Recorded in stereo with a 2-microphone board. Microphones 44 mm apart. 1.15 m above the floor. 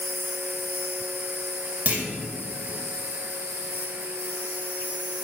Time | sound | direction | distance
0.0 | an insect | 40° right (ahead or behind) | 3 m
1.9 | a clunk | 40° right (ahead or behind) | 1.9 m